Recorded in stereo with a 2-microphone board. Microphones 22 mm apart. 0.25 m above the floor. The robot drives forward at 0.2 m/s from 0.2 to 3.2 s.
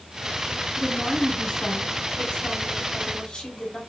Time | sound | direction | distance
0.8 | a woman speaking | 60° left (ahead or behind) | 2.5 m